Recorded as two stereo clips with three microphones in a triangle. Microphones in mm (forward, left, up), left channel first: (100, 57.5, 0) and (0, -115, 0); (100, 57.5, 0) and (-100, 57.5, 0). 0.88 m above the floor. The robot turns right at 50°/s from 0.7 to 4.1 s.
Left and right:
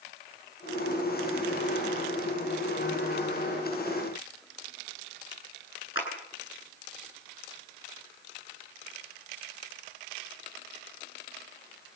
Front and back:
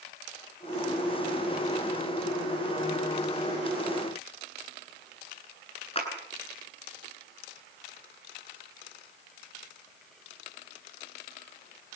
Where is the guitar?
I don't hear a guitar.